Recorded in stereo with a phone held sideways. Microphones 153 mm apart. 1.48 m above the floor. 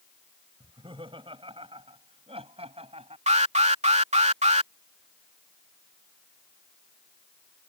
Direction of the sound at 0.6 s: 35° right (ahead or behind).